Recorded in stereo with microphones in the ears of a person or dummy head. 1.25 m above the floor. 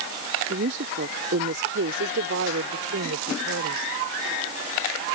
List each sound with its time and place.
0.5 s a woman speaking: 50° right (ahead or behind); by 3.9 s 70° right (ahead or behind)